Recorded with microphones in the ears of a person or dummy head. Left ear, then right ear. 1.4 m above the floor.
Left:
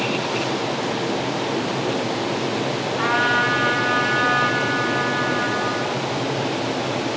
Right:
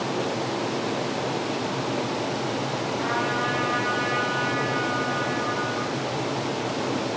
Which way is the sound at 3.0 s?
40° left (ahead or behind).